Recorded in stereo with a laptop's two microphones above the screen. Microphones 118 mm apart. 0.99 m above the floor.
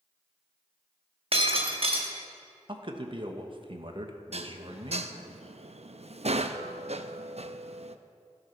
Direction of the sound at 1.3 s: 55° right (ahead or behind).